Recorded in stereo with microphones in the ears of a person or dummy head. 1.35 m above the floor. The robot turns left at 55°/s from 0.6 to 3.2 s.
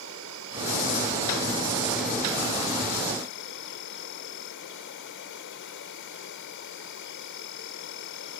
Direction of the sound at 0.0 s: 105° right.